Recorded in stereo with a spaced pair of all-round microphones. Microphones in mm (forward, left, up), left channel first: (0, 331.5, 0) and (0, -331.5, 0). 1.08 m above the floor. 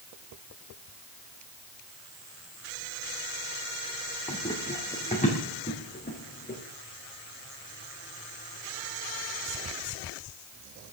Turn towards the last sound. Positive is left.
turn(degrees=15)  # may be behind; listen again after turning